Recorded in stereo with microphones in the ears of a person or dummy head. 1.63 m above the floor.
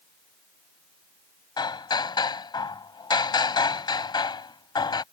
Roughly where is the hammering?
Centre.